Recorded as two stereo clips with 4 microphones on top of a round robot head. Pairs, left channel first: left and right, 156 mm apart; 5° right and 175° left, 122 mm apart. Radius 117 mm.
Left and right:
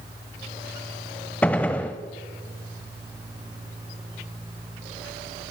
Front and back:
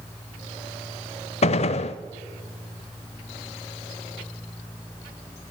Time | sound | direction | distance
1.4 | a gunshot | 5° left | 0.6 m